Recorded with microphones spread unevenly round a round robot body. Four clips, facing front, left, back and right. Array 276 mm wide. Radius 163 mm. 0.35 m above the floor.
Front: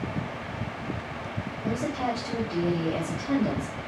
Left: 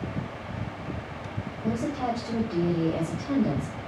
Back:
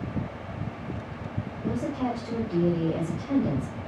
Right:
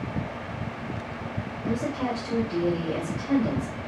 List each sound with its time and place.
1.6 s a woman speaking: 160° left, 1.6 m